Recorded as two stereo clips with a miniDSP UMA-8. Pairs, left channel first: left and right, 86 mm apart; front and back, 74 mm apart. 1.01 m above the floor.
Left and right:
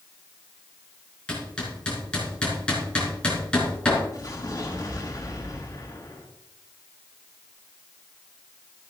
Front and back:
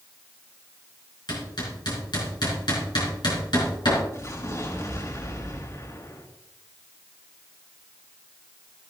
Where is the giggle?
I don't hear a giggle.